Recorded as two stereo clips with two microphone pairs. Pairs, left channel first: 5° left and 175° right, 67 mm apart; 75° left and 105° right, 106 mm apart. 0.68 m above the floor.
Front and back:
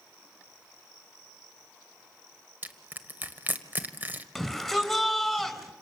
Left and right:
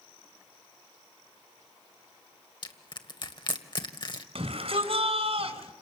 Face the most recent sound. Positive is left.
turn(degrees=-85)